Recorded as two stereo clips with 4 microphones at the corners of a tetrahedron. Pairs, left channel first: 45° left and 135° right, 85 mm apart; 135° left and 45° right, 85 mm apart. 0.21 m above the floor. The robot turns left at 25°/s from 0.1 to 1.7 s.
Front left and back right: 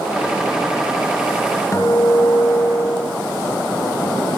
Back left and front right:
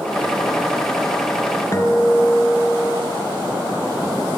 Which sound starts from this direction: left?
A guitar, at 1.7 s.